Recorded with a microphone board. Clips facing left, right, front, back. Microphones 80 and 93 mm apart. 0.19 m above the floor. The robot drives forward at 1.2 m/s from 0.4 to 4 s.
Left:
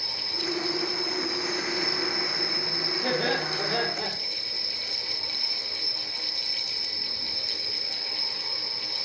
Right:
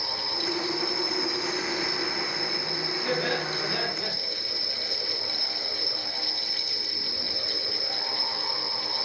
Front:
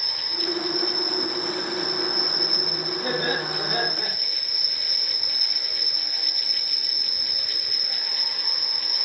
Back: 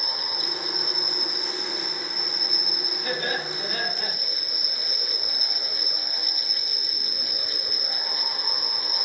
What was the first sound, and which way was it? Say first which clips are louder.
An insect: right 3 dB, front 2 dB; 20° right.